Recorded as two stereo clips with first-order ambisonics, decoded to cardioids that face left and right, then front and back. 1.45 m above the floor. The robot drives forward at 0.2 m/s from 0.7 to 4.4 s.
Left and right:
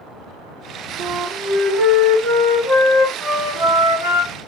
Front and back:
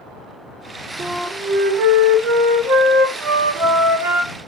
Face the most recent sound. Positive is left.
turn(degrees=-155)